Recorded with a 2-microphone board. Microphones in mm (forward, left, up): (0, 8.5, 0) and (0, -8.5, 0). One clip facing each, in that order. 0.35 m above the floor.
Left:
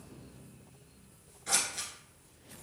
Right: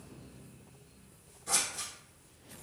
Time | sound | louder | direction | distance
1.5 | scissors | left 1 dB | 40° left (ahead or behind) | 1.3 m